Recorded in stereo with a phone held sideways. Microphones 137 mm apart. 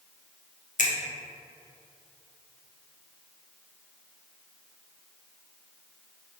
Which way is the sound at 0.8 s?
70° left (ahead or behind).